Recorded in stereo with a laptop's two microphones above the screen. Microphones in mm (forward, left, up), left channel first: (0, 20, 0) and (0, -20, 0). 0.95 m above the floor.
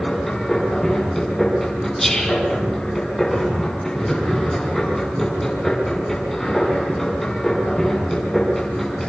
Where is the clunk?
No clunk in this recording.